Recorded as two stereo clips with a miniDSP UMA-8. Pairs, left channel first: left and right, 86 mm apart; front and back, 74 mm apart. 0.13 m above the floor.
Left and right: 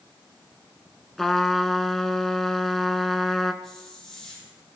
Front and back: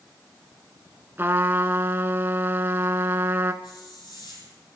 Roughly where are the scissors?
No scissors in this recording.